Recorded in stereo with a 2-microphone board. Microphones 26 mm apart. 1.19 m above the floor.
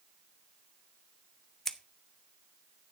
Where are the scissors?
15° left (ahead or behind), 1.0 m.